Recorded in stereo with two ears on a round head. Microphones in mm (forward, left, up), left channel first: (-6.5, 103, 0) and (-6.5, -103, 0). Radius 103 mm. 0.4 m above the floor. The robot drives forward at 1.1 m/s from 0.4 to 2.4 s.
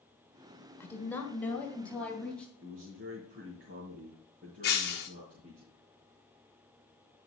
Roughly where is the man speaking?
Right.